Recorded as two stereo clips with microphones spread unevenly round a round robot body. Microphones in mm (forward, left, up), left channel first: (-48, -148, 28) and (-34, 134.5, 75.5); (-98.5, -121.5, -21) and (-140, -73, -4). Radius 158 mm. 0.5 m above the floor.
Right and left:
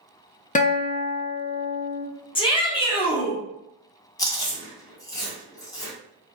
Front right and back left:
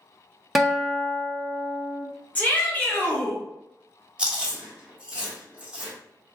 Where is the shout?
50° right, 1.0 m.